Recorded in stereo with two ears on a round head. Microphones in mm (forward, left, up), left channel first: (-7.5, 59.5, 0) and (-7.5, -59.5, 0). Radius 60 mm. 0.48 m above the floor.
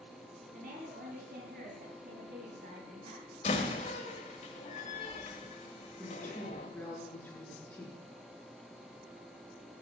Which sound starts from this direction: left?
A door slam, at 3.4 s.